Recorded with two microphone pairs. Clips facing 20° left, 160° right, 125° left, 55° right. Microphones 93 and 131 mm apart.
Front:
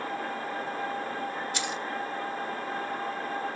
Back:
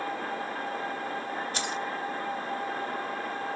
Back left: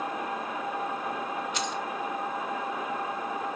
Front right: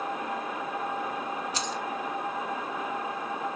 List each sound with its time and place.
1.5 s keys jangling: 105° right, 1.9 m